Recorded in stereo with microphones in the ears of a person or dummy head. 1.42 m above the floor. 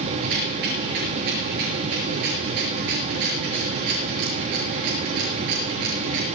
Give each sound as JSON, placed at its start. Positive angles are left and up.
{"t": 0.2, "sound": "a rattle", "side_deg": -60, "distance_m": 6.5}